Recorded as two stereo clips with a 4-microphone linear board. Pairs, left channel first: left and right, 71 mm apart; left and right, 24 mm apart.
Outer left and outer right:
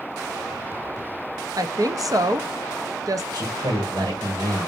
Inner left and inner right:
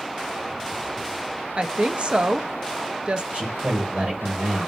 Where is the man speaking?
80° right, 2.0 m.